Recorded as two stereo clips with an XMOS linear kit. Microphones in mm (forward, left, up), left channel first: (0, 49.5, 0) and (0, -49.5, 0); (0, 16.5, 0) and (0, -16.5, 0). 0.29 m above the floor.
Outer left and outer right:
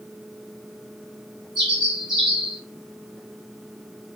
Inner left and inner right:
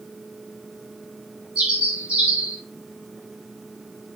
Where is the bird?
45° right (ahead or behind), 3 m.